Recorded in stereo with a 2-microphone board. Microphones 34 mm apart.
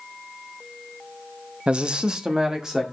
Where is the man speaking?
30° right (ahead or behind), 0.5 m; by 2.8 s 15° right (ahead or behind), 1.5 m.